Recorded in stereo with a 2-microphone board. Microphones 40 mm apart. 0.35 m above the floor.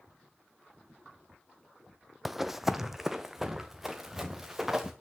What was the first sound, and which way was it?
Running footsteps, 5° right (ahead or behind).